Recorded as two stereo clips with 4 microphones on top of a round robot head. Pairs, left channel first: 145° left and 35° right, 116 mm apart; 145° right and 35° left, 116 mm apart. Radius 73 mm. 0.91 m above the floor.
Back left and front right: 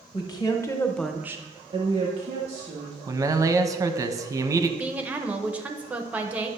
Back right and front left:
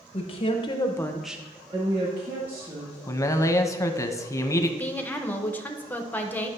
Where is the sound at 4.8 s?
95° right, 0.7 m.